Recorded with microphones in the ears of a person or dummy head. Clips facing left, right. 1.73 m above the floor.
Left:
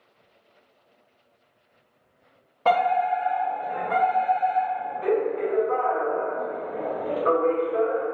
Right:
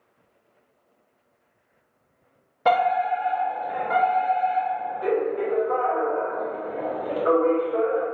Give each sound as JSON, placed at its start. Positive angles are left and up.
{"t": 2.6, "sound": "a fire alarm", "side_deg": -15, "distance_m": 0.8}